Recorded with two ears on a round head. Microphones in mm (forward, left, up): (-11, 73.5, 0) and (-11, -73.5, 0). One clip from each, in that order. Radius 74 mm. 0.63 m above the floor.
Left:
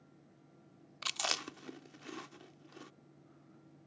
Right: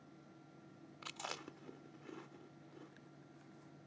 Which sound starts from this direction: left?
Chewing, at 1.0 s.